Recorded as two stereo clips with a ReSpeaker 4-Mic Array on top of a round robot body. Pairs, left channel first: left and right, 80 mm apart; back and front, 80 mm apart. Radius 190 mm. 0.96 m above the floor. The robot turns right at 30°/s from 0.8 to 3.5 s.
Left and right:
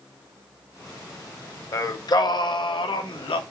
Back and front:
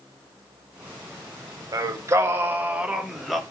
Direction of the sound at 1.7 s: 40° left.